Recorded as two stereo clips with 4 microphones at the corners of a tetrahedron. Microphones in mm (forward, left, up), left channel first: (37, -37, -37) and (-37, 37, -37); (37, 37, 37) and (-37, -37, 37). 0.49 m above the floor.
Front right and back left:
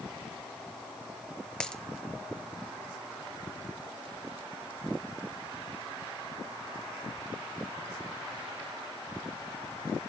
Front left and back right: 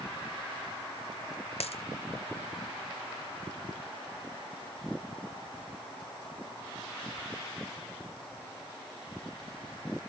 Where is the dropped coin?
35° left, 1.2 m.